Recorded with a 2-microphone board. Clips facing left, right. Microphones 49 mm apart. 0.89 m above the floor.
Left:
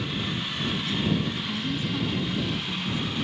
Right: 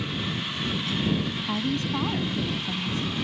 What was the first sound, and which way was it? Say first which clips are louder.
A woman speaking: right 2 dB; 75° right (ahead or behind).